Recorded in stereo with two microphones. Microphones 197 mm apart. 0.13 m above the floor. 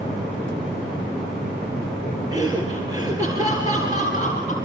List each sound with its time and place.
2.3 s laughter: 20° right (ahead or behind), 2.5 m